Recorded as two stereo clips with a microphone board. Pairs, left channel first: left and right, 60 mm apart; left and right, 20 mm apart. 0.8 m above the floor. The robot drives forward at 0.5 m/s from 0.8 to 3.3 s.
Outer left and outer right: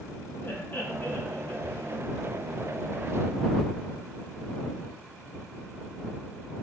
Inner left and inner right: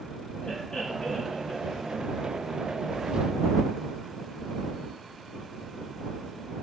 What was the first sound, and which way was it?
Laughter, 40° left (ahead or behind).